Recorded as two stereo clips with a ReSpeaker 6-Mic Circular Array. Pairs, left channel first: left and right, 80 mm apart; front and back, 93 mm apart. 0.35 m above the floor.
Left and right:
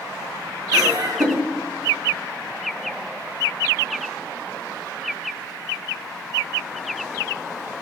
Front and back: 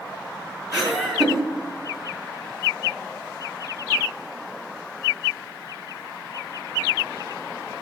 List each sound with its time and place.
0.7 s laughter: 90° right, 1.8 m